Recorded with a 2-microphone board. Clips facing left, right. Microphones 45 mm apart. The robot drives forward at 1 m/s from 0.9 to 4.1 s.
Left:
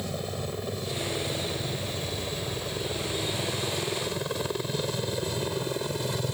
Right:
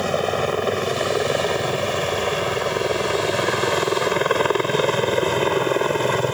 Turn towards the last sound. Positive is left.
turn(degrees=-55)  # may be behind; listen again after turning